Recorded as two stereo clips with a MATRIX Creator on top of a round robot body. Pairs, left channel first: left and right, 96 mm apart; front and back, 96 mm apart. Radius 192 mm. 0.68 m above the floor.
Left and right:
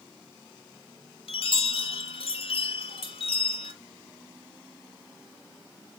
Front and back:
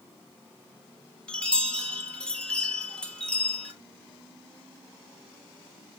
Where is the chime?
80° left, 1.1 m.